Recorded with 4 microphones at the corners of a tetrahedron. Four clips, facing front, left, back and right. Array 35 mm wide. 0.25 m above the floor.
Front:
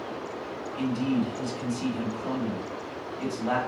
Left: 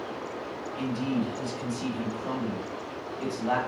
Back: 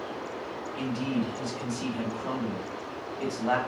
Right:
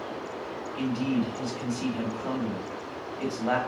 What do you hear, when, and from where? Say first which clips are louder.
0.8 s a man speaking: right 2 dB, front 3 dB; 105° right, 0.9 m